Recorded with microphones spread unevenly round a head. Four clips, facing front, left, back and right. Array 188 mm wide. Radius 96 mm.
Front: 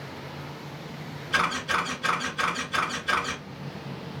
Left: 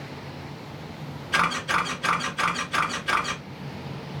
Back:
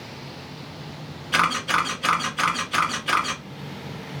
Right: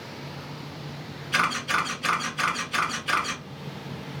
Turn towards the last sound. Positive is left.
turn(degrees=180)